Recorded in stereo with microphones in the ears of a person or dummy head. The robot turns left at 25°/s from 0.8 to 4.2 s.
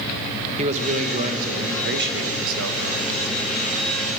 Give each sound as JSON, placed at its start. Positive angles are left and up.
{"t": 0.6, "sound": "a man speaking", "azimuth_deg": -40, "distance_m": 1.2}